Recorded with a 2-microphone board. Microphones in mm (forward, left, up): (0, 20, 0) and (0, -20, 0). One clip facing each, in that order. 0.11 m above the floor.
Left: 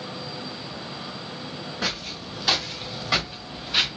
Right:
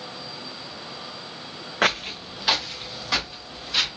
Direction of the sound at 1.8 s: 60° right (ahead or behind).